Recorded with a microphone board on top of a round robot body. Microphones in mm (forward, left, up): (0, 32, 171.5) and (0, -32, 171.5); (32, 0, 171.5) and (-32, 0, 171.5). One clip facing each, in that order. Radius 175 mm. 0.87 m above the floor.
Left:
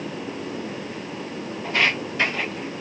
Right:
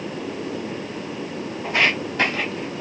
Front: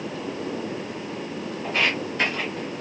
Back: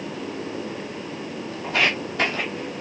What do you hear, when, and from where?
1.6 s footsteps: 155° right, 1.6 m; by 2.8 s 105° right, 1.2 m